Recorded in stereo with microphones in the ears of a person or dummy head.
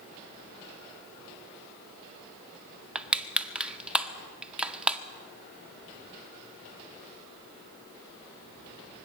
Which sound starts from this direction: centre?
Crushing, at 3.0 s.